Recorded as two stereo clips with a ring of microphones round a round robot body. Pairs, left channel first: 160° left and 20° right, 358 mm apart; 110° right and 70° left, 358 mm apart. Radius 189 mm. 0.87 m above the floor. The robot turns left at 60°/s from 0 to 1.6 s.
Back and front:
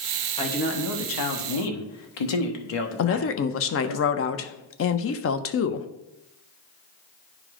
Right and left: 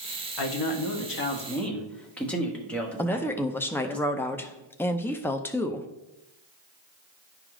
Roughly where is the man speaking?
Behind right.